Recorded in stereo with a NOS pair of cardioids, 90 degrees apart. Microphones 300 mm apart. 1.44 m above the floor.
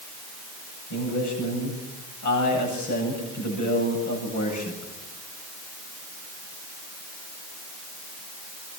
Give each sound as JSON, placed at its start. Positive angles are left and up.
{"t": 0.9, "sound": "a man speaking", "azimuth_deg": 70, "distance_m": 9.0}